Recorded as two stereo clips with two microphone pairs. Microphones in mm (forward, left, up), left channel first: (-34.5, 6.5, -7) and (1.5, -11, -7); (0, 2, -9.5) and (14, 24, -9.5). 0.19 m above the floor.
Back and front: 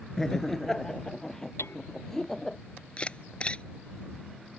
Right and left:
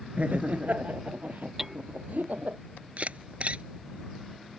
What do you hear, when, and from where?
0.2 s laughter: 75° left
1.6 s hammering: 140° left
3.0 s a camera shutter: 90° left